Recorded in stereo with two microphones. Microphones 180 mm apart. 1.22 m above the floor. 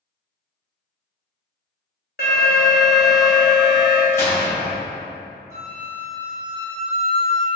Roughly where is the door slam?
Centre.